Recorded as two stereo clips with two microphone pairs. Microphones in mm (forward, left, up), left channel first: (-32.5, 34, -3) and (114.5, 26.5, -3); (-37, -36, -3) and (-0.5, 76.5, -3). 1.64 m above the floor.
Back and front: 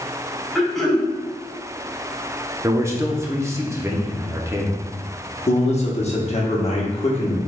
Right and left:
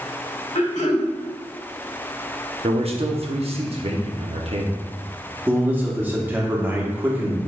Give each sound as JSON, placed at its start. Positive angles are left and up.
{"t": 0.6, "sound": "throat clearing", "azimuth_deg": -95, "distance_m": 1.4}
{"t": 2.6, "sound": "a man speaking", "azimuth_deg": 60, "distance_m": 0.8}
{"t": 5.5, "sound": "a man speaking", "azimuth_deg": 145, "distance_m": 1.0}